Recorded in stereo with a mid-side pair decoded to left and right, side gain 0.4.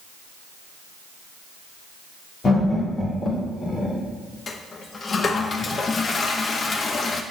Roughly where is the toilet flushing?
Ahead left.